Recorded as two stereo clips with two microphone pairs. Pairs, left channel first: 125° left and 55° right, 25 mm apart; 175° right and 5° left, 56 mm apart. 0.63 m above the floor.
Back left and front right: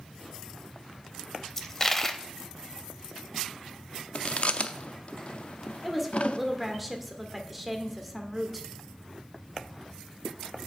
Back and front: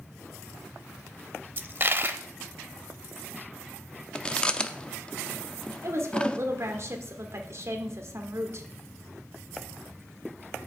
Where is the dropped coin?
55° left, 0.7 m.